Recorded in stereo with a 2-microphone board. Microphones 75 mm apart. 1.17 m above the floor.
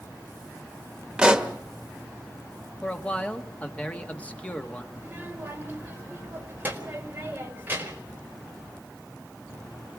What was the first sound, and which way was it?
A pop, 10° right (ahead or behind).